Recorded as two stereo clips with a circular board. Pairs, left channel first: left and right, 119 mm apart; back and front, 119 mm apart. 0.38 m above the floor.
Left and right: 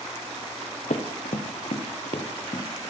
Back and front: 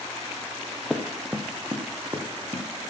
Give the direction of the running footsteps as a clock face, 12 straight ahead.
9 o'clock.